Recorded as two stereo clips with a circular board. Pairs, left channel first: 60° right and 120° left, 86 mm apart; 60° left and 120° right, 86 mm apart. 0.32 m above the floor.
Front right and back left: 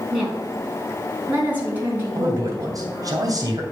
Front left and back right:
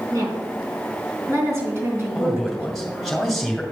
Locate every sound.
0.1 s a woman speaking: 155° right, 3.5 m; by 3.1 s 170° left, 4 m
2.1 s a man speaking: 145° left, 2.5 m